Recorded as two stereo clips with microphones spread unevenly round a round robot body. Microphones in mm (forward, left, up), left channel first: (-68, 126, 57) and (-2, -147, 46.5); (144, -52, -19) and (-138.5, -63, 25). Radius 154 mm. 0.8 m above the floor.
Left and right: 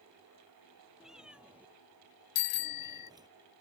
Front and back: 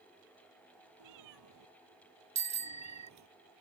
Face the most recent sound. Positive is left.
turn(degrees=110)